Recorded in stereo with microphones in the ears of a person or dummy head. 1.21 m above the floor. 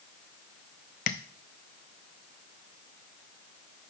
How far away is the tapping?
About 0.5 m.